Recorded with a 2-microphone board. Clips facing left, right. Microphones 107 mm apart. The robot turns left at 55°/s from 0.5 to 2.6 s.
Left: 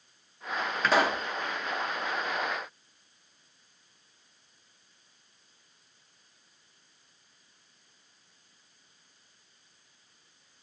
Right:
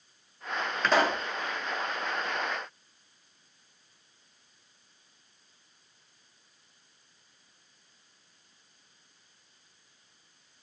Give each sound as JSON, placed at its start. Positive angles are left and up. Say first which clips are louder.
{"t": 0.8, "sound": "a pop", "louder": "even", "side_deg": 0, "distance_m": 0.6}